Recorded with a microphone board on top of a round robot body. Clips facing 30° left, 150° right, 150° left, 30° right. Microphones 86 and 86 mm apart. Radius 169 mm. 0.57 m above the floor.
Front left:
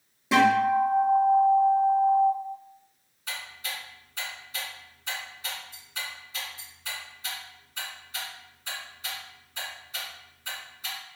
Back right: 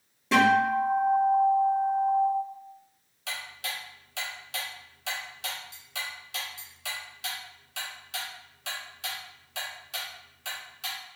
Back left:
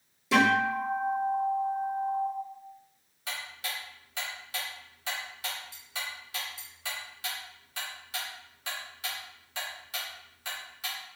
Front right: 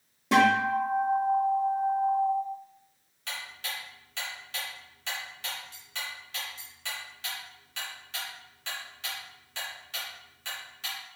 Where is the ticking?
130° right, 0.7 m.